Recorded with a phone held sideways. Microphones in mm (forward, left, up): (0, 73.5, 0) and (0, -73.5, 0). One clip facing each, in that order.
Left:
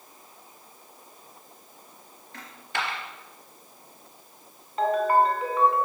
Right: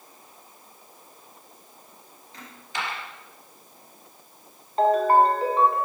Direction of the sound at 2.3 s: 70° left (ahead or behind).